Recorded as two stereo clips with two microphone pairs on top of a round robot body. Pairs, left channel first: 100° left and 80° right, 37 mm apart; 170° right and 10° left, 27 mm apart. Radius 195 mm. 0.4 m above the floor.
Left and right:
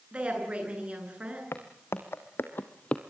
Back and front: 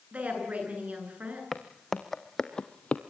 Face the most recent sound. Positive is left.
turn(degrees=155)